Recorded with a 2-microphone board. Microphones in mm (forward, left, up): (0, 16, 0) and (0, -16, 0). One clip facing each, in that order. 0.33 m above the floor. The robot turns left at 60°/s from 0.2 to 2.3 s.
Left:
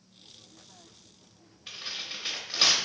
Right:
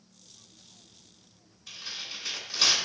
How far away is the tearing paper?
About 0.8 m.